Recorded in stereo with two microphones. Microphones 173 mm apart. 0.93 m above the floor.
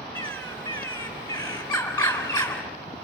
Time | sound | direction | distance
0.1 | a bird | 10° left (ahead or behind) | 3.5 m